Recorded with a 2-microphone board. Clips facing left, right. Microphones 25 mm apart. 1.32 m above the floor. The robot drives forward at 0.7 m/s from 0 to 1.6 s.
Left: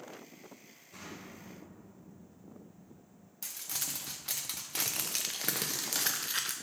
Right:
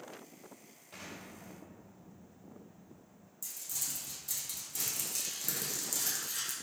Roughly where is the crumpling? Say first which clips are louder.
Left 2 dB; left.